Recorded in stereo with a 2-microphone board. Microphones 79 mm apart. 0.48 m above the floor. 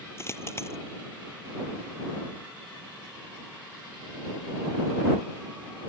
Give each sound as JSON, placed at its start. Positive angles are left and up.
{"t": 0.2, "sound": "a dropped coin", "side_deg": 35}